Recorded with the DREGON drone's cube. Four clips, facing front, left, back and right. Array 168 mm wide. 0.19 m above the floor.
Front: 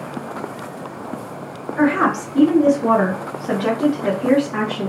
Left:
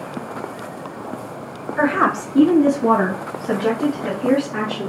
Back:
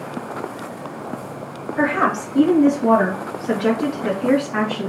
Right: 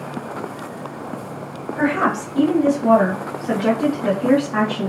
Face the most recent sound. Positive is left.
turn(degrees=-65)